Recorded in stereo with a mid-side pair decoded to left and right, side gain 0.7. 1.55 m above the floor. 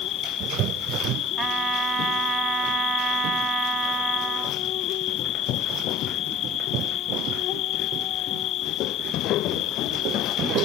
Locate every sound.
0.0 s an insect: 50° left
1.4 s a trumpet: 35° right